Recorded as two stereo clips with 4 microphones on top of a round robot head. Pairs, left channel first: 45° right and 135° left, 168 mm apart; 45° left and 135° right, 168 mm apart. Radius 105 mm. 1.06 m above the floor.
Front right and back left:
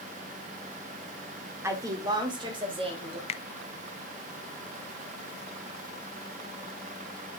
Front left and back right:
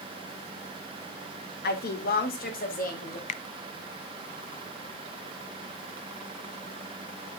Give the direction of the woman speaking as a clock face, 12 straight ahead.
10 o'clock.